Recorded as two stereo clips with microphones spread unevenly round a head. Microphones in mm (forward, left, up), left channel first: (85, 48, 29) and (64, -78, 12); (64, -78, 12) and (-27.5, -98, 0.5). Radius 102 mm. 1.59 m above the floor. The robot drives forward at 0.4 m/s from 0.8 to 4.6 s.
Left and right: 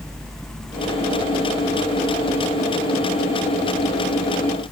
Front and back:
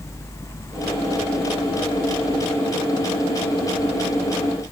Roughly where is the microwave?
I don't hear a microwave.